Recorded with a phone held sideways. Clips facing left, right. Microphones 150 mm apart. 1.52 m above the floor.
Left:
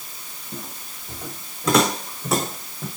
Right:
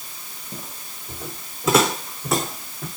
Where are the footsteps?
10° right (ahead or behind), 4 m; by 2.9 s 5° left (ahead or behind), 4.5 m.